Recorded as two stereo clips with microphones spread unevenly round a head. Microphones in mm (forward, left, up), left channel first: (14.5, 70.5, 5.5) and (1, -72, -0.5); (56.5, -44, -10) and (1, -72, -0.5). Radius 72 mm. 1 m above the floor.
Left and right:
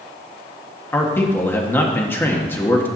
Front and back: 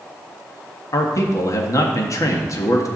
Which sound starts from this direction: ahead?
A man speaking, at 0.9 s.